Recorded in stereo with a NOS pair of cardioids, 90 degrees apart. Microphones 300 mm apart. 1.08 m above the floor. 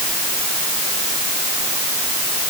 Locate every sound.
Only background noise.